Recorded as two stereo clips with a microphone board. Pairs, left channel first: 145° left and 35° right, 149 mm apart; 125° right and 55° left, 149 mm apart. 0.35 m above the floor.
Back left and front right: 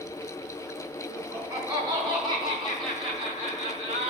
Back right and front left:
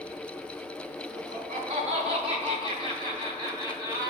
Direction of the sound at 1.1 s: 30° left.